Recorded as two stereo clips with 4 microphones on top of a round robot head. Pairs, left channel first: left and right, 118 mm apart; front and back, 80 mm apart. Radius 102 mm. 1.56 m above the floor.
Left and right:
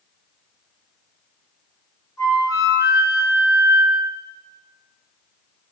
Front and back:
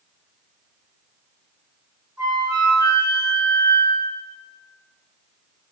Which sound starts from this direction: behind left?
A flute, at 2.2 s.